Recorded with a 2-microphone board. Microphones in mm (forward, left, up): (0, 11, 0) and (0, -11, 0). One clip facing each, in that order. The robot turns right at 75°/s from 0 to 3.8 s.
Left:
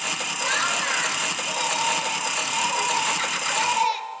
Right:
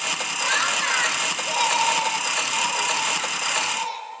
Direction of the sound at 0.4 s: Straight behind.